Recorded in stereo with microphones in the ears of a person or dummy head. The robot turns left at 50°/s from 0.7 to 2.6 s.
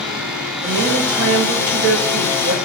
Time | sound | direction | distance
0.6 | a woman speaking | 55° right | 1.5 m